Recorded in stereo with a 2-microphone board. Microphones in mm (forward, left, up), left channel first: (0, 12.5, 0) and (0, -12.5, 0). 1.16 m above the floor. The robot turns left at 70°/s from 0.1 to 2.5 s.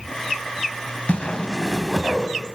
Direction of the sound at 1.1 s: 60° left.